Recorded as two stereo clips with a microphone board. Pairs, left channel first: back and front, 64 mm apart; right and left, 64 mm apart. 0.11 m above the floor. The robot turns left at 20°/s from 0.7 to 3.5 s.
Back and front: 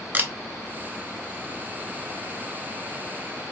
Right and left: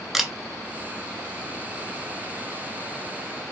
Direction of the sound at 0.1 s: 10° left.